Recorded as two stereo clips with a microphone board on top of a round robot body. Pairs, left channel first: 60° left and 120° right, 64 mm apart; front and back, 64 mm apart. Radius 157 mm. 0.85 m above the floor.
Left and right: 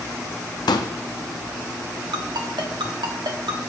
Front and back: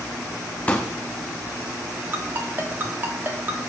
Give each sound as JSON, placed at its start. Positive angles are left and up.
{"t": 0.7, "sound": "a pop", "azimuth_deg": 70, "distance_m": 0.6}
{"t": 2.1, "sound": "a ringtone", "azimuth_deg": -120, "distance_m": 1.3}